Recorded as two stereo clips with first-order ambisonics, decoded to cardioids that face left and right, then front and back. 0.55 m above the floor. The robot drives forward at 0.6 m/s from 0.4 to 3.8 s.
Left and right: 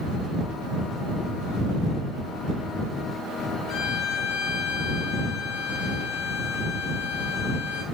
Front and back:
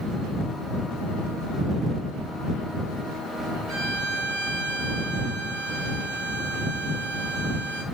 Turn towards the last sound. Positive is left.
turn(degrees=145)